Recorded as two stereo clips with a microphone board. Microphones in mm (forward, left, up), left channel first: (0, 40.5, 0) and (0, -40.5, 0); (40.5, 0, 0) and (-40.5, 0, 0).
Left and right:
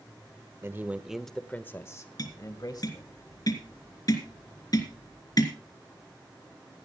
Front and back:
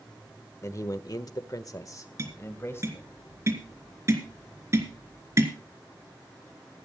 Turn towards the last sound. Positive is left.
turn(degrees=125)